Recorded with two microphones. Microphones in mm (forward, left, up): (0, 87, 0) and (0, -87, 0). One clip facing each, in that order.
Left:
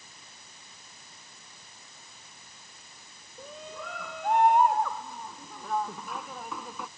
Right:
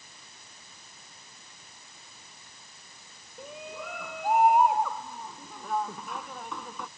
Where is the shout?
10° right (ahead or behind); by 6.9 s 5° left (ahead or behind).